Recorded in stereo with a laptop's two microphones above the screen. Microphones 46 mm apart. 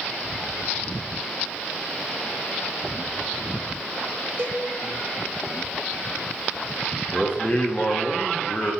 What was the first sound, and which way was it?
A cowbell, 35° right (ahead or behind).